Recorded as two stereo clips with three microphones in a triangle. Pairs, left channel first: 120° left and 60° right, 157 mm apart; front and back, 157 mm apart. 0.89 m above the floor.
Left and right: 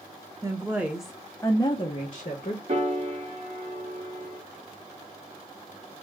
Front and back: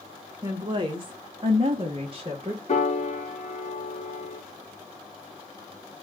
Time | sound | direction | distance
0.4 | a woman speaking | 125° right | 1.1 m
2.7 | a piano | 30° right | 1.4 m